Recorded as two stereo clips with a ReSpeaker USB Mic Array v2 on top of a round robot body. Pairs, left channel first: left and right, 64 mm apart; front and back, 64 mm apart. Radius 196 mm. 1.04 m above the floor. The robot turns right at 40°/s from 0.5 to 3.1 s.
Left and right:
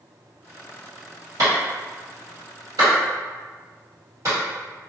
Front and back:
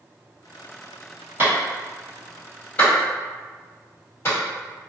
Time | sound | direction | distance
1.4 | a clap | 120° right | 1.6 m